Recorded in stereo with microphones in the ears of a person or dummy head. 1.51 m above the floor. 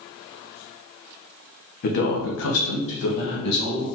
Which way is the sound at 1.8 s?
50° left (ahead or behind).